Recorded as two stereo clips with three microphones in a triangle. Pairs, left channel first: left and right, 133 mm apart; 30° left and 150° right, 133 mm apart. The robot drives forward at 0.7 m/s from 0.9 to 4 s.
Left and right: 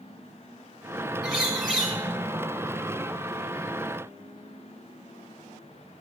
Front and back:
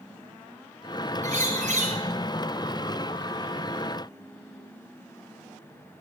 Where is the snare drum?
No snare drum in this recording.